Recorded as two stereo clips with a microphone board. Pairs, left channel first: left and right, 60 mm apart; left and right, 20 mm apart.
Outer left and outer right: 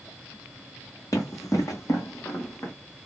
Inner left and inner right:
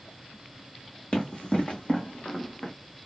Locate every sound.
1.1 s running footsteps: 75° left (ahead or behind), 1.9 m; by 2.7 s 50° left (ahead or behind), 1.5 m